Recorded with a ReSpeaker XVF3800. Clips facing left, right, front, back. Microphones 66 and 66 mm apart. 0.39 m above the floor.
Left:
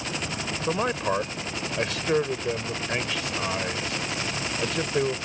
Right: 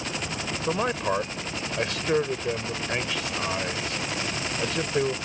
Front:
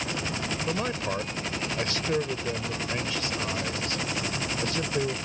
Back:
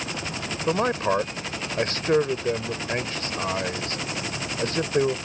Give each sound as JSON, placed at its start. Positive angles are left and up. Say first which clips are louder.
{"t": 0.7, "sound": "a man speaking", "louder": "even, back 10 dB", "azimuth_deg": 180}